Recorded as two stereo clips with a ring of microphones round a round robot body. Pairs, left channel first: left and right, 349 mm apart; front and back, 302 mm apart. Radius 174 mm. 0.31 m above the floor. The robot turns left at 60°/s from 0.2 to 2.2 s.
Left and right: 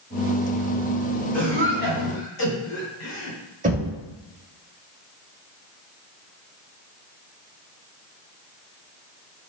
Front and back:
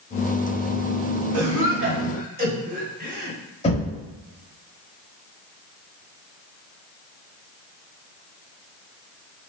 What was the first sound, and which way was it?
A cough, 175° left.